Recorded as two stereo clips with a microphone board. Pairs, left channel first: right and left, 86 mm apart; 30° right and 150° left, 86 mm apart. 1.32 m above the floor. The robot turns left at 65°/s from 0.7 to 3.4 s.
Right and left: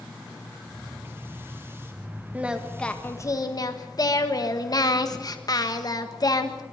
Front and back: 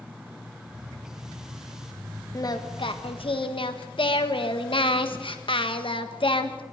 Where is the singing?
20° left, 1.6 m; by 6.6 s 45° right, 1.6 m.